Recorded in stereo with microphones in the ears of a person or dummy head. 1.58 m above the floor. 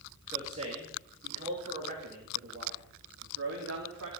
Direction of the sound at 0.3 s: 25° right (ahead or behind).